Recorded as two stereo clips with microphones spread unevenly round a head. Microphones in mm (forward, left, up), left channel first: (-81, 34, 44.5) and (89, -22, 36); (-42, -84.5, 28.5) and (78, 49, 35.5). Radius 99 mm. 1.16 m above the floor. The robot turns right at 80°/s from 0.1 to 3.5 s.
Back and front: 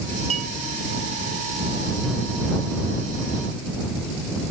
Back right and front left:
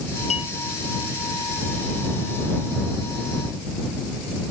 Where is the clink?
75° right; by 0.5 s 60° right.